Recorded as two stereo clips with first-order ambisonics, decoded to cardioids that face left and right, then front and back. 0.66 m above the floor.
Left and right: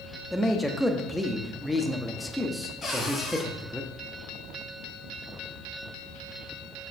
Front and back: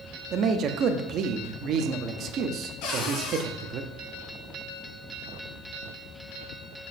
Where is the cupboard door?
20° left, 3 m.